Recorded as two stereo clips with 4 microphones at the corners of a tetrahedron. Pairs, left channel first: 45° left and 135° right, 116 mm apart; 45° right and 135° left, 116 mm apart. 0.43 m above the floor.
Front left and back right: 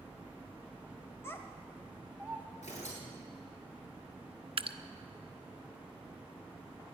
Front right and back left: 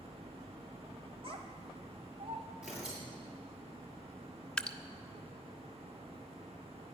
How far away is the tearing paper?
About 6.5 m.